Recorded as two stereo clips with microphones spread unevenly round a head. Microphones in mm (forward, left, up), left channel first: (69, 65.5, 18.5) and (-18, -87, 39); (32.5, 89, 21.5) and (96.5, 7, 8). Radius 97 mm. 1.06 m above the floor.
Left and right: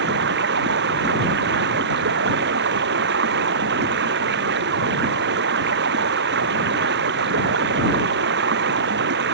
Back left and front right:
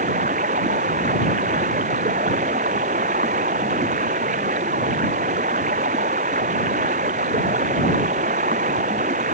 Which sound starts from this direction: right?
Running water, at 0.0 s.